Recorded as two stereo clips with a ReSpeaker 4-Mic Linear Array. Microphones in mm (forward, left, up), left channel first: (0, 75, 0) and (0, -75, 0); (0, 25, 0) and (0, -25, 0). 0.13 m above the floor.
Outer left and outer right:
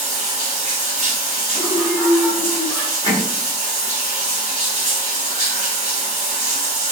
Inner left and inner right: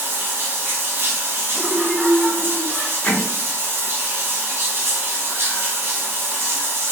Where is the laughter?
15° left (ahead or behind), 1.1 m.